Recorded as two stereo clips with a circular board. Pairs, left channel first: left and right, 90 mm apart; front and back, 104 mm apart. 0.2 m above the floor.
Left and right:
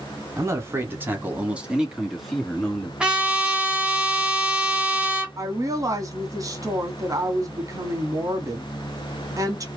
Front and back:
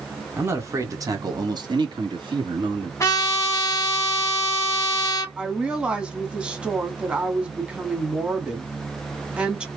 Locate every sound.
0.4 s a man speaking: 125° right, 1.4 m; by 2.9 s 170° left, 1.7 m
3.0 s a trumpet: 20° right, 1.4 m
5.4 s a woman speaking: 105° right, 1.3 m